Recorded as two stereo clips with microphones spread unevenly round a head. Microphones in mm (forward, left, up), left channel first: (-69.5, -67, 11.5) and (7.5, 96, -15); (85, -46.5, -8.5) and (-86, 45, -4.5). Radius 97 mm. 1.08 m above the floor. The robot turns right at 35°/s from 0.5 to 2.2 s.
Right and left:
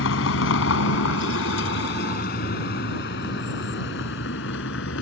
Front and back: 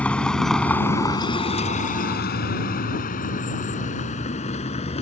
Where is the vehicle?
110° right; by 5.0 s 90° right.